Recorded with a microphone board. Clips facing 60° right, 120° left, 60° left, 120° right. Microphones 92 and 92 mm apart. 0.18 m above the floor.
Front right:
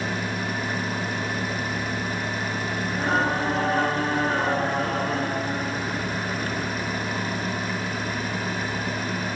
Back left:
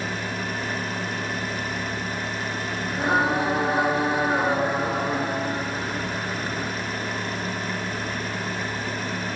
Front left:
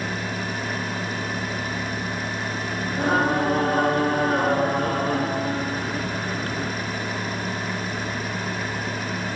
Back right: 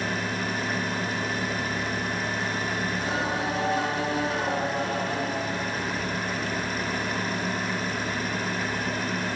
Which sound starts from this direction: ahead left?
Singing, at 2.9 s.